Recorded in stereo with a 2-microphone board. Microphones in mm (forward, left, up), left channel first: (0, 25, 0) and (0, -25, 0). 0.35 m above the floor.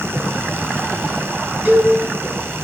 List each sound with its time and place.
1.6 s a cowbell: 35° right (ahead or behind), 3.5 m